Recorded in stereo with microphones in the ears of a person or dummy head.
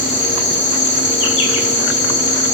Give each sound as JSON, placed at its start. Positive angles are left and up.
{"t": 0.0, "sound": "an insect", "side_deg": 35, "distance_m": 2.0}